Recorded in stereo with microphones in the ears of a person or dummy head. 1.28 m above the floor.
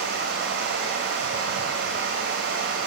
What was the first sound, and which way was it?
Running water, 65° right (ahead or behind).